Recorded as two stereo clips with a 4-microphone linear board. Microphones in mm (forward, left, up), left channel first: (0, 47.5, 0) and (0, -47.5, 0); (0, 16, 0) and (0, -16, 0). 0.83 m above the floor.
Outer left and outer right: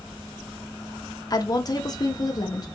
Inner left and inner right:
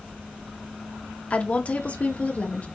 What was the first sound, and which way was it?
A woman speaking, 40° left (ahead or behind).